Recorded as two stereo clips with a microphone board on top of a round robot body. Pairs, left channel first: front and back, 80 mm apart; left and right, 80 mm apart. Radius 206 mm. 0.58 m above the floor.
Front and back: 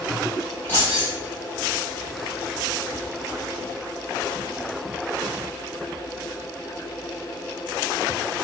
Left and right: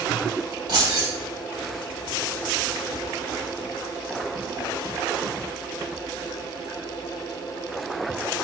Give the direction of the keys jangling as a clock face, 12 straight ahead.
2 o'clock.